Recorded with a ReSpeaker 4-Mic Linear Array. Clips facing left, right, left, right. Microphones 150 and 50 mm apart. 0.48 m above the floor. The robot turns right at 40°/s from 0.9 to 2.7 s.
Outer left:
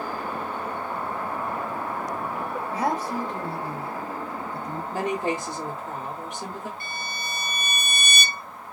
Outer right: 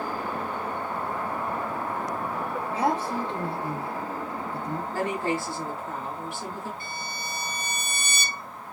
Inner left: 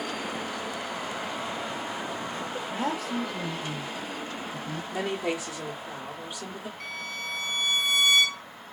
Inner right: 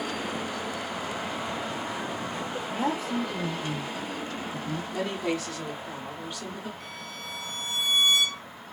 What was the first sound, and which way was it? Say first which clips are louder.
A woman speaking: outer right 1 dB, inner right 2 dB; 25° right (ahead or behind).